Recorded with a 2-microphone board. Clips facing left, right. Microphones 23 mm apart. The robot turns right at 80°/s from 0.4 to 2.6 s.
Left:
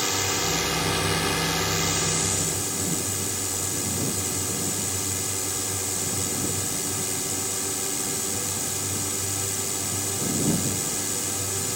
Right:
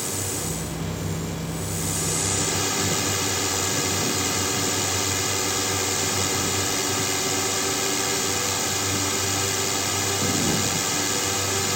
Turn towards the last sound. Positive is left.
turn(degrees=-155)